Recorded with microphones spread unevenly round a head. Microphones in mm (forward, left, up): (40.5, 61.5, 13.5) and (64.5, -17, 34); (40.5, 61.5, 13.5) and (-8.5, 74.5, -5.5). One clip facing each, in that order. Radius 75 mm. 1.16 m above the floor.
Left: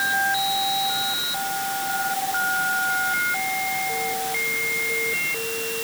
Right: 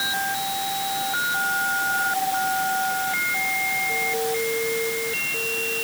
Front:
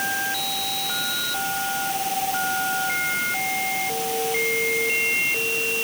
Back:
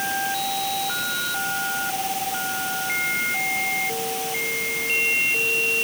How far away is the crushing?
I don't hear crushing.